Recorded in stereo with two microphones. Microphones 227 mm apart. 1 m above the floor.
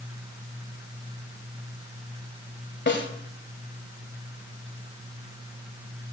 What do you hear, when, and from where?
2.9 s a snare drum: 55° left (ahead or behind), 1.8 m